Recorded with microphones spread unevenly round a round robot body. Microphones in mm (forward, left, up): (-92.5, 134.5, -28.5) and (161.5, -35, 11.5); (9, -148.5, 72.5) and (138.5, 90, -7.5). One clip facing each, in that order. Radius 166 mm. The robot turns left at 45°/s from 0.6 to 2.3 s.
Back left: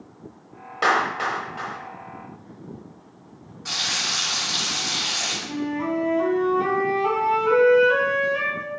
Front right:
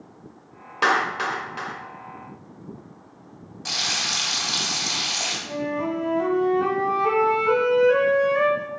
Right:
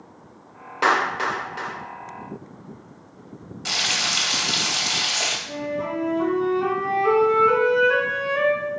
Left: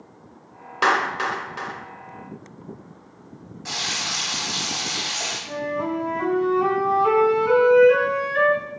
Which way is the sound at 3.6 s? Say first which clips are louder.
Even, right 1 dB; 80° right.